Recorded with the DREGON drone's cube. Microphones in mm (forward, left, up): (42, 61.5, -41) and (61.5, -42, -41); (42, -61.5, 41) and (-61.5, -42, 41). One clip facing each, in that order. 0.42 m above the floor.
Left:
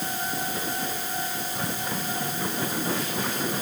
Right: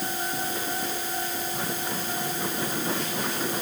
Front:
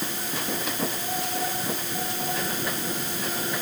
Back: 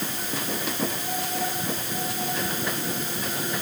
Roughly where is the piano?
I don't hear a piano.